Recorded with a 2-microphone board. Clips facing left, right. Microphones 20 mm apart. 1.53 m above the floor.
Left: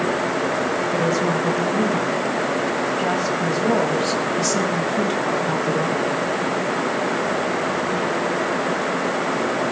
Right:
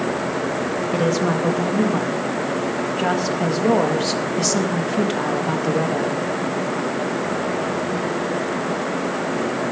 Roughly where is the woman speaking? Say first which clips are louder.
Right 2 dB; right.